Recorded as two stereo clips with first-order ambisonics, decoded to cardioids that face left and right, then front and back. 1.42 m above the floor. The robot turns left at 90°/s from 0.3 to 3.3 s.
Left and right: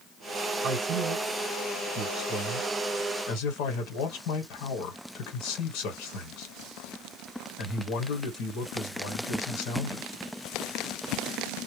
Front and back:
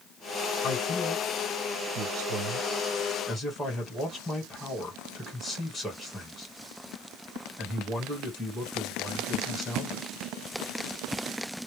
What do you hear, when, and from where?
0.6 s a man speaking: 40° right, 1.2 m; by 10.1 s 80° left, 1.2 m